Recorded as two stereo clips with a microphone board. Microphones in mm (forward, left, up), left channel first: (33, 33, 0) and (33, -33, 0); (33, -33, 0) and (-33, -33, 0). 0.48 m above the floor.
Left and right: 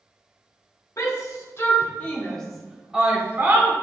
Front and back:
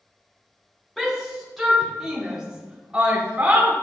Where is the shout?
85° left, 1.9 m; by 3.7 s 120° right, 1.6 m.